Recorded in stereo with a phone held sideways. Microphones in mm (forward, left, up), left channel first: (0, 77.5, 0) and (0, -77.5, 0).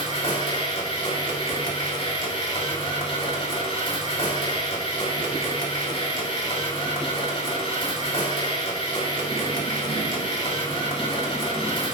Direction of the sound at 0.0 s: 40° left (ahead or behind).